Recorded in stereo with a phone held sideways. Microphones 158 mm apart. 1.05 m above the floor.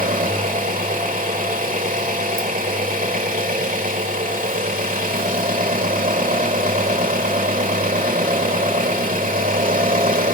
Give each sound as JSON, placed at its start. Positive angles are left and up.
{"t": 0.0, "sound": "an engine running", "side_deg": -60, "distance_m": 1.6}